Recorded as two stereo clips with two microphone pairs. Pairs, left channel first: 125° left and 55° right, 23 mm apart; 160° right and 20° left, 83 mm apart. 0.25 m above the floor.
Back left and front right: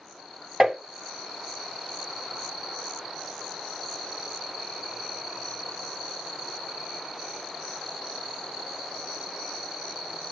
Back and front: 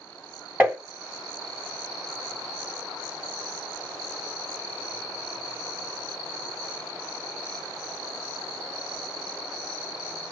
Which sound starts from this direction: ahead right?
Tapping, at 0.6 s.